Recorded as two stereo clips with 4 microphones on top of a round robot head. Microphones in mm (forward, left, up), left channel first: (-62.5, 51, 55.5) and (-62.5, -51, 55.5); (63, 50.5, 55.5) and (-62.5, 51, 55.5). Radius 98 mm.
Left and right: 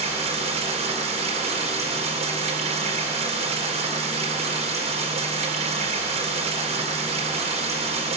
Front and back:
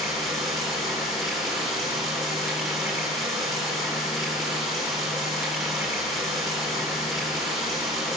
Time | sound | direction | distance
0.0 | running water | 90° right | 3.5 m